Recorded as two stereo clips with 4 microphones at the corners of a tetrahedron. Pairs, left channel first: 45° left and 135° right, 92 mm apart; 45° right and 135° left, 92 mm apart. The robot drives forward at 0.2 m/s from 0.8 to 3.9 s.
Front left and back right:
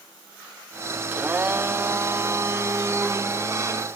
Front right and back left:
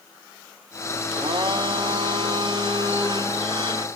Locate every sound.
1.1 s a blender: 155° left, 0.5 m; by 3.9 s 170° left, 1.0 m